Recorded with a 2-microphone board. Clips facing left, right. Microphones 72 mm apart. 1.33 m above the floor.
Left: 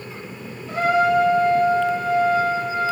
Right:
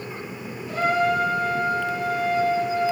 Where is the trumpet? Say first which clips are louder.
Left 4 dB; 30° left (ahead or behind), 2.5 m.